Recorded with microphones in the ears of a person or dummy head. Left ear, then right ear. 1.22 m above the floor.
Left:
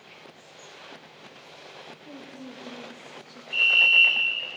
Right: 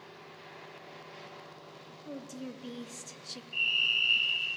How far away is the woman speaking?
About 2.5 m.